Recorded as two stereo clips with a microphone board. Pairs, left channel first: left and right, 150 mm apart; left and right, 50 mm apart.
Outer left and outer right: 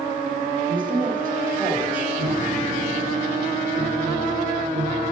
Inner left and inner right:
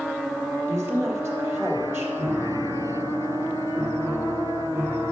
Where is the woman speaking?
65° right (ahead or behind), 2.5 m.